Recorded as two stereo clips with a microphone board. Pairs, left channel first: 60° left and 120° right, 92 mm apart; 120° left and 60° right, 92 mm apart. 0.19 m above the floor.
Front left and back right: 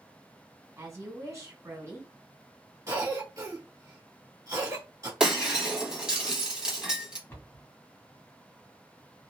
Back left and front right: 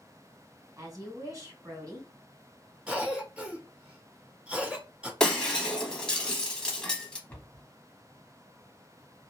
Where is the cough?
130° right, 1.3 m.